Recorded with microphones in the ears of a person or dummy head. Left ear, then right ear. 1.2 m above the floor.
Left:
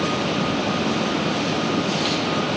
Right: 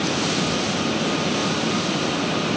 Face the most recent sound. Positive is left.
No sound to turn to.